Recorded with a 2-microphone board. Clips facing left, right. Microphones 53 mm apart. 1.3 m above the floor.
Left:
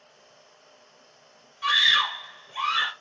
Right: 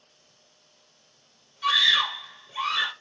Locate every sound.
1.6 s a scream: 25° left (ahead or behind), 0.6 m